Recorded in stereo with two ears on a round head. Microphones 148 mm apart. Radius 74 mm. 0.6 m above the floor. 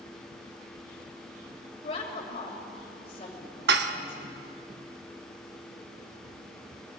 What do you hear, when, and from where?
1.8 s a woman speaking: 35° left (ahead or behind), 2.5 m
3.7 s dishes clattering: 70° right (ahead or behind), 0.8 m